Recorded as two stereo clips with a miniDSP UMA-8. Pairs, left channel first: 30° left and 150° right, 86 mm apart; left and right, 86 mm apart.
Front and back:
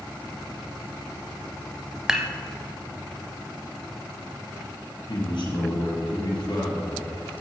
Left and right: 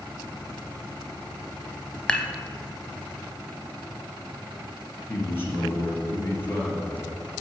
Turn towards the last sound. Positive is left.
turn(degrees=25)